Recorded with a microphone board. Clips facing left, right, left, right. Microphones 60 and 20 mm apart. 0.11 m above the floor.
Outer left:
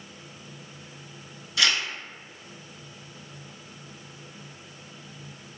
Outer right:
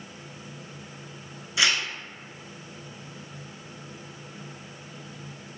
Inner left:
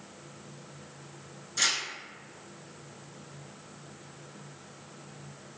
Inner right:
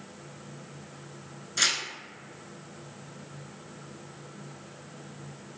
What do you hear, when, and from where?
1.6 s tearing paper: 20° right (ahead or behind), 0.6 m